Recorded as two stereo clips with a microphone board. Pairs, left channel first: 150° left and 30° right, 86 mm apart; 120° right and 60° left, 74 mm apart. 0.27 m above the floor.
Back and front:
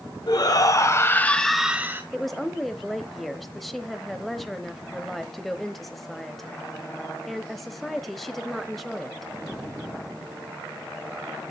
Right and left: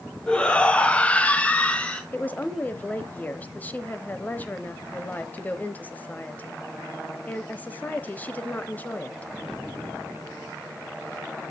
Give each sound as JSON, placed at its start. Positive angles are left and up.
{"t": 0.3, "sound": "a shout", "azimuth_deg": 165, "distance_m": 2.0}
{"t": 2.1, "sound": "a woman speaking", "azimuth_deg": -125, "distance_m": 0.9}